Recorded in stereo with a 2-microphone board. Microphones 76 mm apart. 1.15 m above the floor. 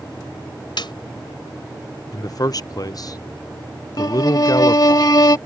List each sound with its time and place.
0.8 s a snare drum: 70° left (ahead or behind)
2.1 s a man speaking: 50° left (ahead or behind)
4.0 s a violin: 55° left (ahead or behind)